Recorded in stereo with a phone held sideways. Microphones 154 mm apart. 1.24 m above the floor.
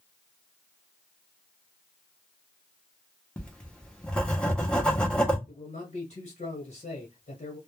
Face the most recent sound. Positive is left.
turn(degrees=55)  # may be behind; listen again after turning